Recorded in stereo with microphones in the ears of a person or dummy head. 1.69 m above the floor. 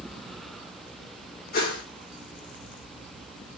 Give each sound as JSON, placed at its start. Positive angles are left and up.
{"t": 1.5, "sound": "a whoosh", "side_deg": 50, "distance_m": 1.5}